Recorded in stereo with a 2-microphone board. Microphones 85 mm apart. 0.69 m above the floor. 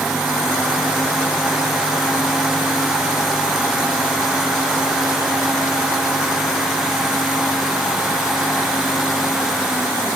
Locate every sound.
Only background noise.